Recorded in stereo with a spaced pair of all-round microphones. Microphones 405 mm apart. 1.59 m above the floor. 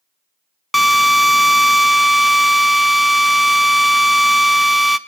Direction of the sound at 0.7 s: Centre (ahead or behind).